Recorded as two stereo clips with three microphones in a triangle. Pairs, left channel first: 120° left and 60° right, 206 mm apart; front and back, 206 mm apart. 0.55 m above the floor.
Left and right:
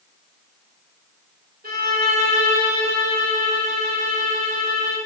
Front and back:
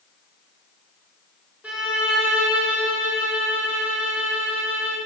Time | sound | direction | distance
1.6 | a violin | 100° right | 2 m